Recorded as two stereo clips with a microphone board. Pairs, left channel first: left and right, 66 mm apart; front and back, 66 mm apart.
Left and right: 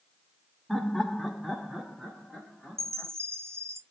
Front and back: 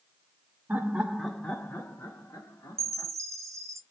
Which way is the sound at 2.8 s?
135° right.